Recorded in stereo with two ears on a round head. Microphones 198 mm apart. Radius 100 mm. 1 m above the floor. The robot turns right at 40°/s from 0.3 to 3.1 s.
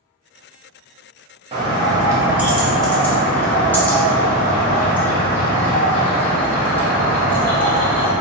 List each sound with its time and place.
1.5 s a bird: 50° right, 0.8 m; by 8.1 s 15° left, 0.8 m